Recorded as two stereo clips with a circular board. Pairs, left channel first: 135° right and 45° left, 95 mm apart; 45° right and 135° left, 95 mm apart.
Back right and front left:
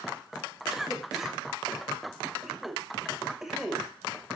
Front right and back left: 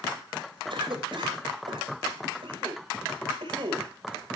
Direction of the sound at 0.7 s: 130° left.